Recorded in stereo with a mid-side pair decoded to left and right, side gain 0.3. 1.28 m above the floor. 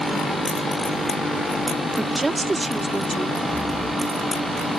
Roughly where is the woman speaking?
Ahead right.